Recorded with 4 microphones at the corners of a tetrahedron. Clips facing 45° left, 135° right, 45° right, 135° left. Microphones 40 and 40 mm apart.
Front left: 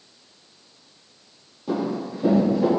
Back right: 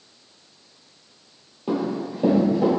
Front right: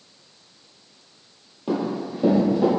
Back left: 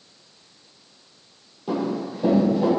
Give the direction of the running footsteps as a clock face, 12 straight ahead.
3 o'clock.